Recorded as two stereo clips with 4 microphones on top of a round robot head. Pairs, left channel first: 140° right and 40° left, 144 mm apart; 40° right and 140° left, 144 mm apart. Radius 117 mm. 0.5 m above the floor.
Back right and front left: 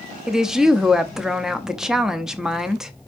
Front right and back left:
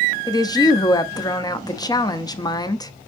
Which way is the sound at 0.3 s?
40° right.